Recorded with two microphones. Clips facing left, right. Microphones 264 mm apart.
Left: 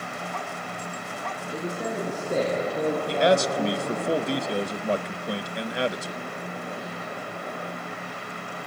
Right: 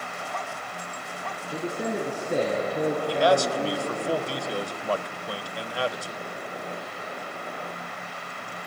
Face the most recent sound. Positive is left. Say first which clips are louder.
# left 1 dB
turn(degrees=20)  # may be behind; listen again after turning